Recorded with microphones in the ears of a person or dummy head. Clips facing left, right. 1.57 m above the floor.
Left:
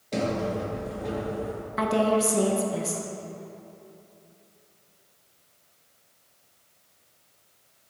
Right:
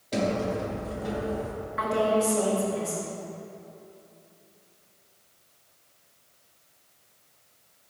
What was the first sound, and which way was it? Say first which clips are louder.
A sliding door: even; centre (ahead or behind).